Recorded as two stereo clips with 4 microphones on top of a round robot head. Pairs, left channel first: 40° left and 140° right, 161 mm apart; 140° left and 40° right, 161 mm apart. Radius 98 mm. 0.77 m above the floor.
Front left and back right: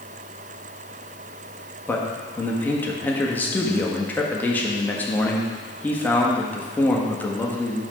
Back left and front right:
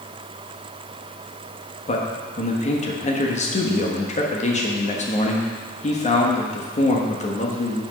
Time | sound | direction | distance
1.9 | a man speaking | 115° left | 1.5 m